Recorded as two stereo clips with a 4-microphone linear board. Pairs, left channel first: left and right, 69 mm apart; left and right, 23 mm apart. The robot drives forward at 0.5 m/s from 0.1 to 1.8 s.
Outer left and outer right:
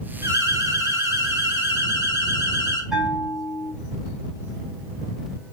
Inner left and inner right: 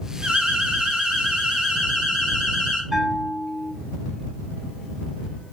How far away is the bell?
About 7.5 m.